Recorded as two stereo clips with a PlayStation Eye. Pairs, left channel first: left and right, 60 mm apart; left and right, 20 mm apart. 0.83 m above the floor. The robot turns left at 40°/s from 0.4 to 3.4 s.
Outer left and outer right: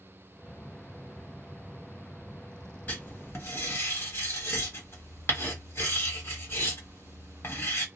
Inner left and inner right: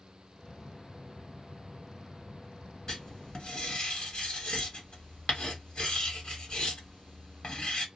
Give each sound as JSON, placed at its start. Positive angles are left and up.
{"t": 2.9, "sound": "writing", "side_deg": 25, "distance_m": 1.4}